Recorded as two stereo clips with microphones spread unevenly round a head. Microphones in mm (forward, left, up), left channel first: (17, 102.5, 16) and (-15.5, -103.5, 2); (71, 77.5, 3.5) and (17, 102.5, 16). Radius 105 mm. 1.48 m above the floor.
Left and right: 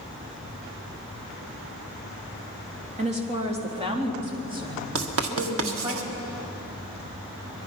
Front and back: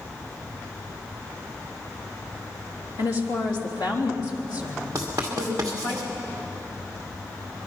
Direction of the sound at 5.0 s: 125° right.